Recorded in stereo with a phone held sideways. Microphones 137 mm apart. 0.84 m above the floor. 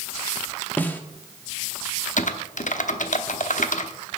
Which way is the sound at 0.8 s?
15° left (ahead or behind).